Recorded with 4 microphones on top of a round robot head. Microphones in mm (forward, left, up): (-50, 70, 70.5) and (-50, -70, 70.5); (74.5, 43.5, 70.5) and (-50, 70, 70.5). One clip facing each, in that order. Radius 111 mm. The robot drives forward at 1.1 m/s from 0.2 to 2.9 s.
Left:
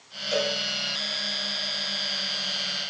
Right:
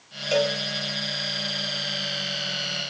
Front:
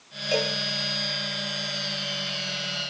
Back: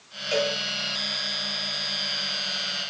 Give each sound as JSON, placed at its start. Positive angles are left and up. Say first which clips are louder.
{"t": 0.3, "sound": "a cowbell", "louder": "right 4 dB, back 1 dB", "azimuth_deg": -75, "distance_m": 4.0}